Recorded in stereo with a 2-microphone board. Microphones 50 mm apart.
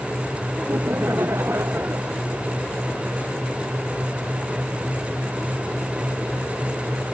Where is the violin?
I don't hear a violin.